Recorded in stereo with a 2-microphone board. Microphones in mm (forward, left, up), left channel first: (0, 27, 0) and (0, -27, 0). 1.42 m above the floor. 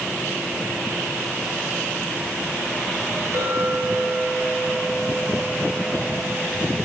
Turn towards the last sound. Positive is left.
turn(degrees=-55)  # may be behind; listen again after turning